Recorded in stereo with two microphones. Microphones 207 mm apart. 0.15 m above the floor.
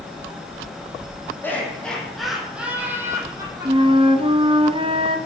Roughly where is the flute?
Right.